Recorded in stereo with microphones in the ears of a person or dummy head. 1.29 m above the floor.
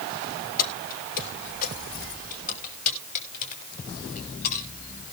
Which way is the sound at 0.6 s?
45° left (ahead or behind).